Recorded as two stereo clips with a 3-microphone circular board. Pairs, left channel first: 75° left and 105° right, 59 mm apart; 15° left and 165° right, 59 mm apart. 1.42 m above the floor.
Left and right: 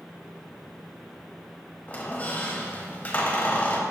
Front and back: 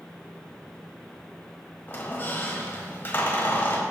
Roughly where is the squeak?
Ahead left.